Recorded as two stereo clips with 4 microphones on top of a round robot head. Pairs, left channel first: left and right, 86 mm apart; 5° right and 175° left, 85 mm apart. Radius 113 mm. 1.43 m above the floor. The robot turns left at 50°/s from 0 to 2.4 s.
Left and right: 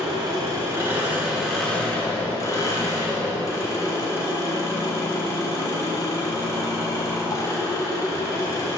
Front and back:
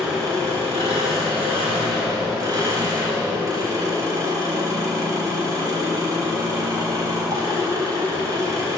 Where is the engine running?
105° right, 1.3 m; by 8.8 s 135° left, 1.3 m.